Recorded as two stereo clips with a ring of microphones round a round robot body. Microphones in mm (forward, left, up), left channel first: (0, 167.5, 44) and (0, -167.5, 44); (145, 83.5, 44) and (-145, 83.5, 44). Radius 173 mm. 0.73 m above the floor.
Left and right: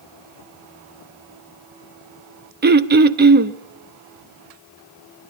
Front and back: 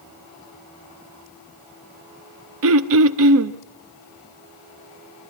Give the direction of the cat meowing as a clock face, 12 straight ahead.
I don't hear a cat meowing.